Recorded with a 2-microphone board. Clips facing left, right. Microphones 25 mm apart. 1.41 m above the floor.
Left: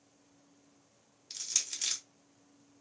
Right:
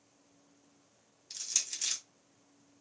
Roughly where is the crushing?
Centre.